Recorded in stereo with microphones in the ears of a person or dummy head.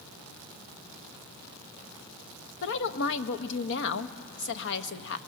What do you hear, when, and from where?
2.6 s a woman speaking: 65° left (ahead or behind), 1.1 m